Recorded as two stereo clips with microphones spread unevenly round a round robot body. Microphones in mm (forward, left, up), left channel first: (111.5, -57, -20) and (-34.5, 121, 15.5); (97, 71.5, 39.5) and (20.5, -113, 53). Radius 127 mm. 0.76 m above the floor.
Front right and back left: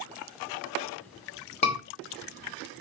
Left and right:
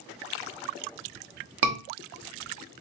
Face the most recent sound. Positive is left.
turn(degrees=-110)